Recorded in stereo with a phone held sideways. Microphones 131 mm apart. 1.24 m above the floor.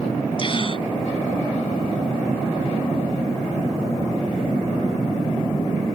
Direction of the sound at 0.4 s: 40° left (ahead or behind).